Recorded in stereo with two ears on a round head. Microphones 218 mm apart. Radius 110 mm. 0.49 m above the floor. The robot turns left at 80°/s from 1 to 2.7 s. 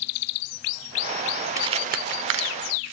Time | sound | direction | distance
1.6 | crumpling | 15° right (ahead or behind) | 1.0 m